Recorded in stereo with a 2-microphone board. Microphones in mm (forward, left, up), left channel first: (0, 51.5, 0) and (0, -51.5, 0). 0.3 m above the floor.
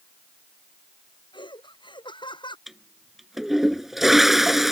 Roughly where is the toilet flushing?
Centre.